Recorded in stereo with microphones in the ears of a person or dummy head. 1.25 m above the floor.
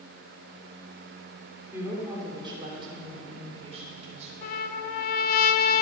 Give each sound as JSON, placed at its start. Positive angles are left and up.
{"t": 1.7, "sound": "a woman speaking", "side_deg": -15, "distance_m": 3.0}
{"t": 4.4, "sound": "a trumpet", "side_deg": 50, "distance_m": 0.7}